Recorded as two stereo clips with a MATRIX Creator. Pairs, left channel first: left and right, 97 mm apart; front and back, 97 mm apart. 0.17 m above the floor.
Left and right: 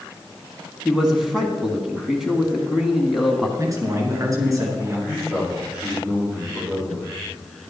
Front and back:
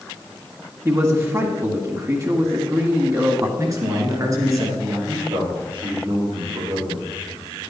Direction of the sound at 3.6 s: 135° right.